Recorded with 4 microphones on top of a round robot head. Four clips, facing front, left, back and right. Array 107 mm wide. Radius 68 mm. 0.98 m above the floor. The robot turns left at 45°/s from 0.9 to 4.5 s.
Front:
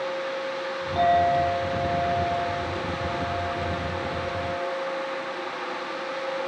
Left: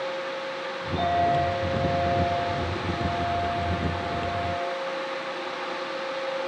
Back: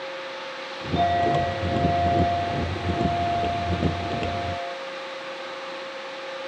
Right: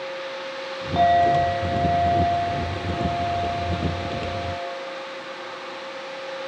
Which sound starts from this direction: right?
A clink, at 0.9 s.